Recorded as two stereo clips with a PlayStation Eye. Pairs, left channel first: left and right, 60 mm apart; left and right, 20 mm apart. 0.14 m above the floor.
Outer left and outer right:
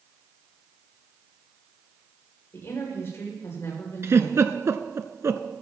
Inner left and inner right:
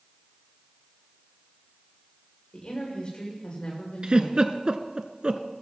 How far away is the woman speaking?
About 7.5 m.